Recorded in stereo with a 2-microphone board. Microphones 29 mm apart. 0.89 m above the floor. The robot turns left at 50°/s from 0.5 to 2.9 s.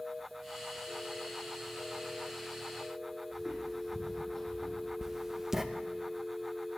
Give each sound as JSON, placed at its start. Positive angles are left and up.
{"t": 3.3, "sound": "footsteps", "side_deg": -15, "distance_m": 3.0}
{"t": 5.0, "sound": "writing", "side_deg": -15, "distance_m": 0.7}